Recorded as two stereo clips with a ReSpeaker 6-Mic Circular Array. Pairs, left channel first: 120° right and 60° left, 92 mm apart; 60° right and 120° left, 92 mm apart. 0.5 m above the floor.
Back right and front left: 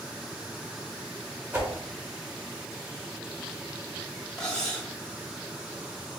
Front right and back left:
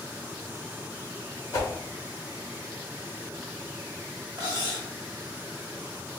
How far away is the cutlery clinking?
About 1.1 m.